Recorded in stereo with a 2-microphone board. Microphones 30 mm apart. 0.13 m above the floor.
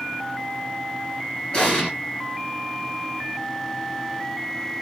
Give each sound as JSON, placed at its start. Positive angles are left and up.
{"t": 1.5, "sound": "an explosion", "side_deg": 25, "distance_m": 2.5}